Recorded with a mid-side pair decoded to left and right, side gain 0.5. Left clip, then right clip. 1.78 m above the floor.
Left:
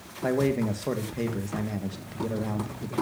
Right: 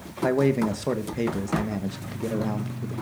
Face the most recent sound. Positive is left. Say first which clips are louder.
# right 3 dB
turn(degrees=-20)